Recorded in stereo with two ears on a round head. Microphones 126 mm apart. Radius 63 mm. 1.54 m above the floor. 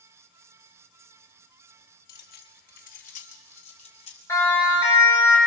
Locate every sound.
2.1 s keys jangling: 75° left (ahead or behind), 2 m; by 4.2 s 45° left (ahead or behind), 4.5 m
4.3 s a siren: 20° left (ahead or behind), 10 m; by 5.4 s 15° left (ahead or behind), 9.5 m